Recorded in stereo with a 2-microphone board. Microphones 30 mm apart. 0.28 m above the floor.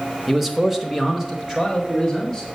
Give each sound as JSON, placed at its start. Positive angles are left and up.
{"t": 0.3, "sound": "a man speaking", "side_deg": -5, "distance_m": 0.9}